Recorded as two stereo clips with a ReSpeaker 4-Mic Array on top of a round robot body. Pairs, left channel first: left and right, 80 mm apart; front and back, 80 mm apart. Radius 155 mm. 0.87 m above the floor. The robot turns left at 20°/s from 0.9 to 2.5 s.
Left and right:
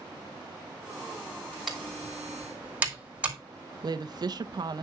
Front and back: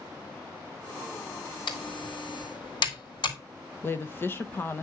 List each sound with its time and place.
1.7 s typing on a keyboard: straight ahead, 3.5 m; by 3.4 s 15° right, 3.5 m
3.8 s a woman speaking: 60° right, 0.8 m